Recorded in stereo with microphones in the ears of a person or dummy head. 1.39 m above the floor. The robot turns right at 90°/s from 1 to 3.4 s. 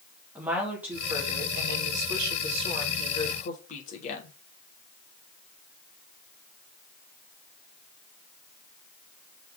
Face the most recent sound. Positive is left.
turn(degrees=45)